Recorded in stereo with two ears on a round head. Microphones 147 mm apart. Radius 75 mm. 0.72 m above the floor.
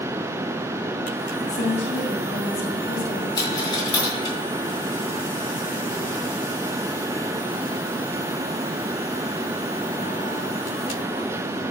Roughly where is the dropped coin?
Left.